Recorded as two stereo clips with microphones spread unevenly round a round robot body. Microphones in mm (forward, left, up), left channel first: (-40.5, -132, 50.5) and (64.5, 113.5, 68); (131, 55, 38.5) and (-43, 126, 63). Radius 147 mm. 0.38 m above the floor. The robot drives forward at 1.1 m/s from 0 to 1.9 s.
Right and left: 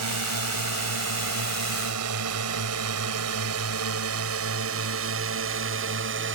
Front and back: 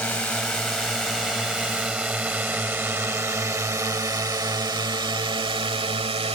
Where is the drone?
60° left; by 6.4 s 105° left.